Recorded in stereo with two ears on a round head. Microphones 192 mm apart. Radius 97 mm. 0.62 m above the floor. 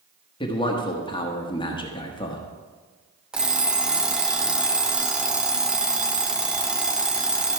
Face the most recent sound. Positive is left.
turn(degrees=-5)  # may be behind; listen again after turning